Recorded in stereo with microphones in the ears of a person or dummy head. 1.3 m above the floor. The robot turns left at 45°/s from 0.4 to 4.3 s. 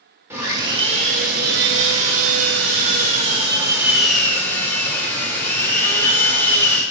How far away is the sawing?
About 1.9 m.